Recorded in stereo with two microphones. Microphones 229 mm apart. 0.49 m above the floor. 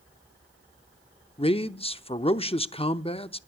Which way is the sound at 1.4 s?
25° left (ahead or behind).